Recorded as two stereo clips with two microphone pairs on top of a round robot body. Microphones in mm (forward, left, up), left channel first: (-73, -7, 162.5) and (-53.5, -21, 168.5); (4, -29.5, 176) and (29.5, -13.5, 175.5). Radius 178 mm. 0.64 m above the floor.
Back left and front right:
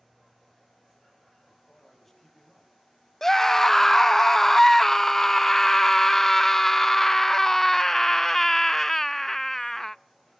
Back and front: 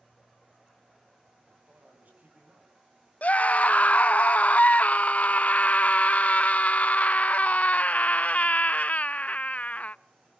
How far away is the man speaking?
About 6 m.